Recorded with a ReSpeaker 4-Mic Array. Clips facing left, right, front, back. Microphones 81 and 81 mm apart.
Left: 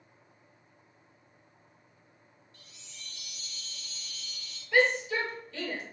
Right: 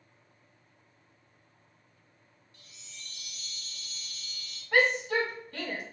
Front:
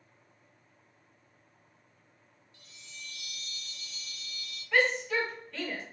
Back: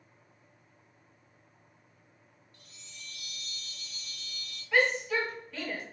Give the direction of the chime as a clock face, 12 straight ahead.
7 o'clock.